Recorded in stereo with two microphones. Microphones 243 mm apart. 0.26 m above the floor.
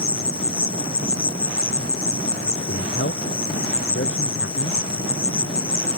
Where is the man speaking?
55° left (ahead or behind).